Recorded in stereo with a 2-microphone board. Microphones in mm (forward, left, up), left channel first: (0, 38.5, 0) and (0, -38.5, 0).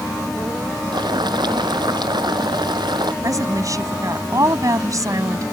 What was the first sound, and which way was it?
Boiling, 80° right.